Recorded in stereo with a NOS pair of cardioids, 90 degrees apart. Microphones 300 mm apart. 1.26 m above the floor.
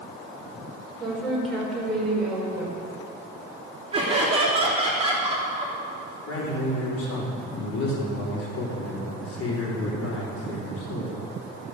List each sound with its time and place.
1.0 s a woman speaking: 5° left, 5 m; by 2.8 s straight ahead, 5.5 m
3.9 s laughter: 20° right, 3 m
6.3 s a man speaking: 50° left, 4.5 m